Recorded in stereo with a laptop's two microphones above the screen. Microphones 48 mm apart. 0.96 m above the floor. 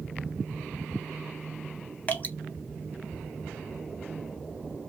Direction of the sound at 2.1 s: 30° left (ahead or behind).